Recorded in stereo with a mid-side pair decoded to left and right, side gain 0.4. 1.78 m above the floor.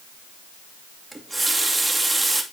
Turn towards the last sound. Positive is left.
turn(degrees=-15)